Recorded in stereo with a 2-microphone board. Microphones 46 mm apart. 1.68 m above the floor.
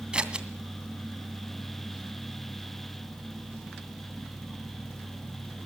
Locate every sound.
0.1 s scissors: 20° right (ahead or behind), 2 m